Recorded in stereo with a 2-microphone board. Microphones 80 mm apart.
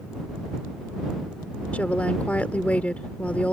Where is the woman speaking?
20° left (ahead or behind).